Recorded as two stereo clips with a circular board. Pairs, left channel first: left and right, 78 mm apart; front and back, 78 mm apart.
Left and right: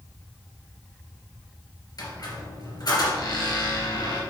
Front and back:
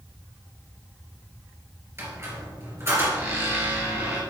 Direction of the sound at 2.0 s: 120° left.